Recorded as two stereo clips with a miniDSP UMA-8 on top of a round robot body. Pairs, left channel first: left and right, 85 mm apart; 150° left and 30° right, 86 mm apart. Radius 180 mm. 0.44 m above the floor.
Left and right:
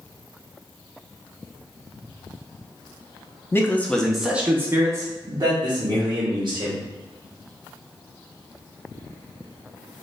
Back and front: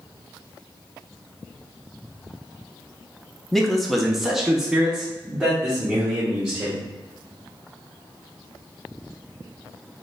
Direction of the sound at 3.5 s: 65° left.